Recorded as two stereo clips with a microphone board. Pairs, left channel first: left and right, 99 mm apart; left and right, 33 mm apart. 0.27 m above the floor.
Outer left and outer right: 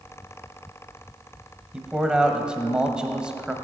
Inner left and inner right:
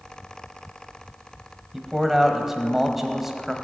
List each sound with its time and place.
1.7 s a man speaking: 10° right (ahead or behind), 1.3 m